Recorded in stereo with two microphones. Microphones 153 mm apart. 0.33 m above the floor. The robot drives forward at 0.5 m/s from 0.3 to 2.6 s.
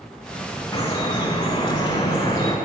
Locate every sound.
0.7 s dripping: 20° left (ahead or behind), 1.3 m; by 2.6 s 25° left (ahead or behind), 1.2 m